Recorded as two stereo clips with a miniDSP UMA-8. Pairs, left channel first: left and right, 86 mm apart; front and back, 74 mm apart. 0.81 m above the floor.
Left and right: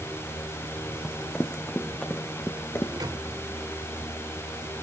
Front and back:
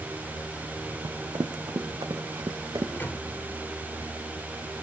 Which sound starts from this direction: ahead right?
A microwave, at 3.0 s.